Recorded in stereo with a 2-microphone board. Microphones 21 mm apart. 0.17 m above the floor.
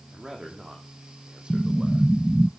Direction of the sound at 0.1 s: 45° right (ahead or behind).